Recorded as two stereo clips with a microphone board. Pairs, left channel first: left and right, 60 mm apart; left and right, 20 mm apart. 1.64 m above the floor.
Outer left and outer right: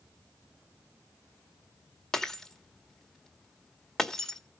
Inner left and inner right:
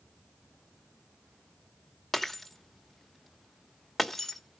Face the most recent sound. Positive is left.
turn(degrees=10)  # may be behind; listen again after turning